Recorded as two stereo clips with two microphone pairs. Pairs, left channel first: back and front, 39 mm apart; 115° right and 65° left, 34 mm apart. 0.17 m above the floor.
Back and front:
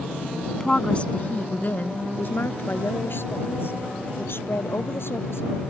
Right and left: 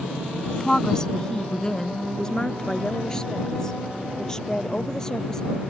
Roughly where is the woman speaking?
Behind right.